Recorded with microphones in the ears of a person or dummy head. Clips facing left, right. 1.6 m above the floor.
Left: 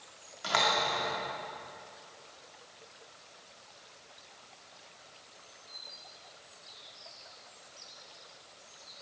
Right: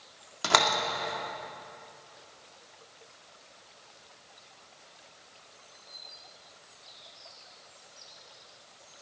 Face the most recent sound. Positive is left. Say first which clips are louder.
# right 3 dB
turn(degrees=-65)  # may be behind; listen again after turning